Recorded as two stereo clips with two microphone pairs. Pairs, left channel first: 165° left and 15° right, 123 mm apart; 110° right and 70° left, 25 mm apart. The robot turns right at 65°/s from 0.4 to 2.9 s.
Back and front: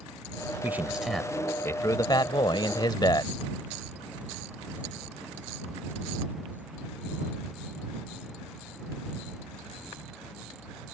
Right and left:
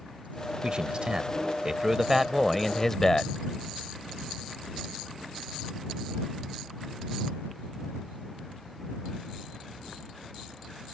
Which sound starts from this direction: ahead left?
A man speaking, at 0.6 s.